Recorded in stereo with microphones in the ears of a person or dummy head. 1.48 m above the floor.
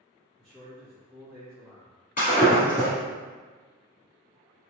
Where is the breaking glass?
40° left (ahead or behind), 1.7 m.